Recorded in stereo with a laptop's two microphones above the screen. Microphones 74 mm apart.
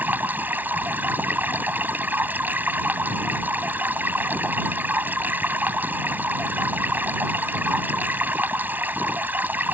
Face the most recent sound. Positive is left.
turn(degrees=-25)  # may be behind; listen again after turning